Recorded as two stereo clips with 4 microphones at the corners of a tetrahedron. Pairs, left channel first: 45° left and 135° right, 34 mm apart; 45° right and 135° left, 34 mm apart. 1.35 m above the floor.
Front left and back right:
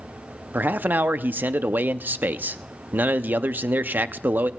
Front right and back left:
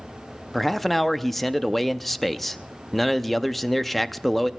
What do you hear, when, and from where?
0.5 s a man speaking: 130° right, 0.5 m